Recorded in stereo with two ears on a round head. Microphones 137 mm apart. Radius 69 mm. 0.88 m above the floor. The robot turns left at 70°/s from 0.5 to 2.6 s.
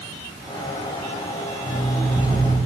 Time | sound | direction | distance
1.7 | an alarm clock | 30° left | 3 m